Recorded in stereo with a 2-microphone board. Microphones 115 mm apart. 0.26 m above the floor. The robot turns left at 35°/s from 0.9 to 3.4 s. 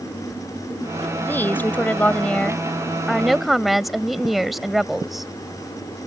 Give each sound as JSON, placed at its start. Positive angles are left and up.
{"t": 1.2, "sound": "a woman speaking", "side_deg": 20}